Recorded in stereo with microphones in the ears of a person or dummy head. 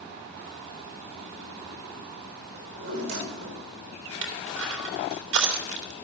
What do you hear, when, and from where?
2.5 s a drawer: 75° right (ahead or behind), 4.5 m
4.2 s crushing: 70° right (ahead or behind), 3 m